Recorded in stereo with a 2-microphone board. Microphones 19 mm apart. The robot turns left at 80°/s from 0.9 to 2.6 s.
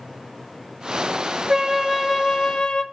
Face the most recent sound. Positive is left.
turn(degrees=125)